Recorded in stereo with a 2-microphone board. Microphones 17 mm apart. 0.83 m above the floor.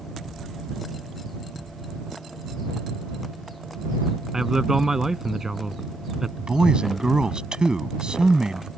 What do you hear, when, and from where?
4.3 s a man speaking: 25° right (ahead or behind)
6.4 s a man speaking: 65° right (ahead or behind)